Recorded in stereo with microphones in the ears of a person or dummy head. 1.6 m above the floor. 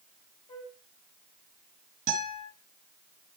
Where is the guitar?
45° right (ahead or behind), 6.5 m.